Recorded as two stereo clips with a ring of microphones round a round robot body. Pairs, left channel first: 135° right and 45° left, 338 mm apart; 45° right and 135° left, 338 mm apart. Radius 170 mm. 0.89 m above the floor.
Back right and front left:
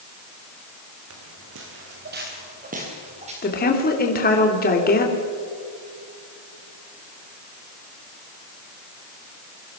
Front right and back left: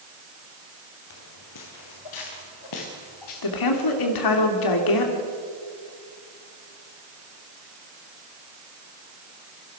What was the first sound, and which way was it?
Footsteps, 5° right.